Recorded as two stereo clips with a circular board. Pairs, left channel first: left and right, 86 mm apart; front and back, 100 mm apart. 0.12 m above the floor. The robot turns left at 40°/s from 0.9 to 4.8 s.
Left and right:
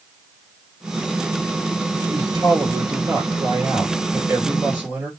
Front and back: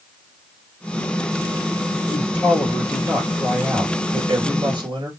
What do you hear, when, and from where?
2.1 s a man speaking: 55° right, 2 m; by 5.1 s 160° right, 2 m